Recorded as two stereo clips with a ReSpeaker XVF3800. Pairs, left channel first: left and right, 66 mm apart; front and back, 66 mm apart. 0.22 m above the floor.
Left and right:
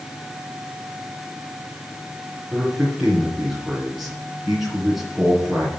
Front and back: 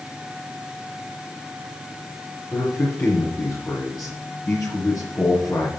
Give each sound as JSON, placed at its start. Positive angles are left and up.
{"t": 2.5, "sound": "a man speaking", "azimuth_deg": -10, "distance_m": 2.5}